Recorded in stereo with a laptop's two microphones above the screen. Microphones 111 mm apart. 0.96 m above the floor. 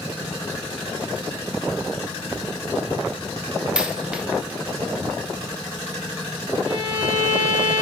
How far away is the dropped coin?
About 0.6 m.